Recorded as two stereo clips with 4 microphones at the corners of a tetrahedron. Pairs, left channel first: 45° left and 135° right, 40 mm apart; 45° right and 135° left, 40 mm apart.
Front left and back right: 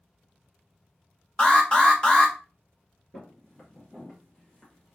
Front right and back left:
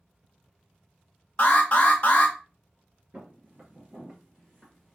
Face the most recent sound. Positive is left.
turn(degrees=35)